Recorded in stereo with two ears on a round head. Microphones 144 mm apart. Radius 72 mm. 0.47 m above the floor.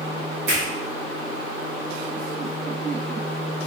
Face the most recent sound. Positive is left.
turn(degrees=-75)  # may be behind; listen again after turning